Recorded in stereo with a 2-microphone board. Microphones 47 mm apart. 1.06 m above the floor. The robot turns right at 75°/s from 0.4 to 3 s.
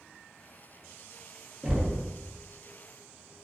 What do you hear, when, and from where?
1.6 s knocking: 20° right, 0.5 m; by 2.1 s 10° left, 0.5 m